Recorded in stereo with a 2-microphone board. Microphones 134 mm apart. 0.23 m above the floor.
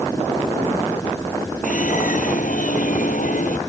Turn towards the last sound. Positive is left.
turn(degrees=80)